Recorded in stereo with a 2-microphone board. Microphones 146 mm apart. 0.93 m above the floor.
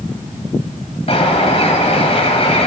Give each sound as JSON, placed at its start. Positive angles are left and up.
{"t": 1.1, "sound": "a bird", "side_deg": 45, "distance_m": 1.4}